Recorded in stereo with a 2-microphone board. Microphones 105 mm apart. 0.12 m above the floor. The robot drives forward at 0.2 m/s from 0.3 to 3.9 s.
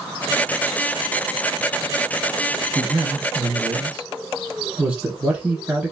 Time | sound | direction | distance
2.8 | a man speaking | 15° right (ahead or behind) | 1.2 m